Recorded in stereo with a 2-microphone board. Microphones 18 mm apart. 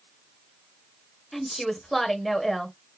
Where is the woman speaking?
10° left (ahead or behind), 1.2 m.